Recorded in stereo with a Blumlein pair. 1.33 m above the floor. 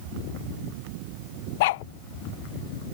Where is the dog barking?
50° left.